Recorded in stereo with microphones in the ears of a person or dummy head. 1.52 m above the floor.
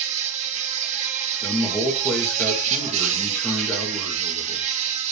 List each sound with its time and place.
0.0 s an insect: 40° right (ahead or behind), 1.6 m
1.4 s a man speaking: 10° left (ahead or behind), 1.3 m